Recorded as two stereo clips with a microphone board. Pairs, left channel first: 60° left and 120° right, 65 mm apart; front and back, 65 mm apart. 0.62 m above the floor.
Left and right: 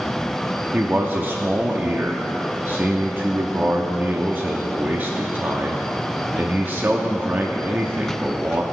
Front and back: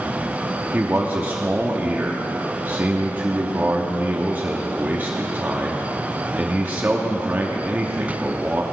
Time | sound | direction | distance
0.7 | a man speaking | 145° right | 0.9 m